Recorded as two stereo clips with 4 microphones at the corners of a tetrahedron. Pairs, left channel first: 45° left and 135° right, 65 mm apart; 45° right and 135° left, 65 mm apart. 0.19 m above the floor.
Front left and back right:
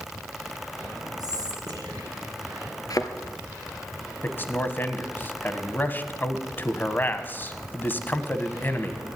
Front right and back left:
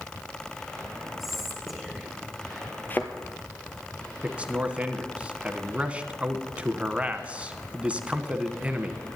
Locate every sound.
1.2 s whispering: 140° right, 2.5 m
2.9 s a thud: 15° left, 1.3 m
4.2 s a man speaking: 80° left, 1.2 m